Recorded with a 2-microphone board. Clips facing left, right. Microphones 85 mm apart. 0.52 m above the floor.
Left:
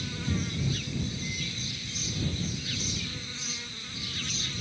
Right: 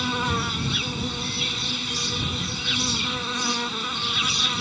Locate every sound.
0.0 s an insect: 80° right